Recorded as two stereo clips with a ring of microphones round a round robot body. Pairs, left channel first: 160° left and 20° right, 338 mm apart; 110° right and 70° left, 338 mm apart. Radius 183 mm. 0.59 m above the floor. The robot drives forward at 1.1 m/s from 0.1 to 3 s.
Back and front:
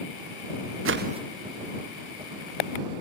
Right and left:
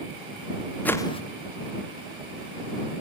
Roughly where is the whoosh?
Ahead right.